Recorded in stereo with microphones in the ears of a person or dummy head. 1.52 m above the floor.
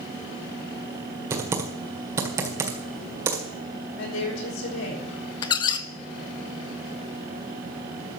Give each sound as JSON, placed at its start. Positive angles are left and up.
{"t": 1.3, "sound": "typing on a keyboard", "side_deg": -15, "distance_m": 1.7}
{"t": 4.0, "sound": "a woman speaking", "side_deg": 75, "distance_m": 5.0}
{"t": 5.4, "sound": "a squeak", "side_deg": 30, "distance_m": 0.6}